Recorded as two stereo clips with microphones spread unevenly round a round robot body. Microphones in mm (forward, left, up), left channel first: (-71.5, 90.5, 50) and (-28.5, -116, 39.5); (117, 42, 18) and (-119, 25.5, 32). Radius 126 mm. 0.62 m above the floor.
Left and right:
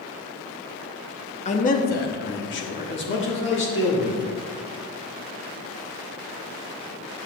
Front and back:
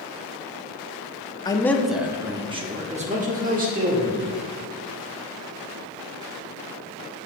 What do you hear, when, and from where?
1.4 s a man speaking: 60° left, 0.9 m; by 4.3 s 135° left, 2.5 m